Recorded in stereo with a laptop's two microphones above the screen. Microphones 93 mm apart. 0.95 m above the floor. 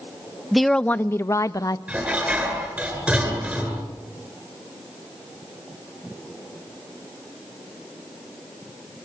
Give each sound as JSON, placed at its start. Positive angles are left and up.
{"t": 0.5, "sound": "a woman speaking", "side_deg": -5, "distance_m": 0.6}
{"t": 1.9, "sound": "dishes clattering", "side_deg": -15, "distance_m": 8.5}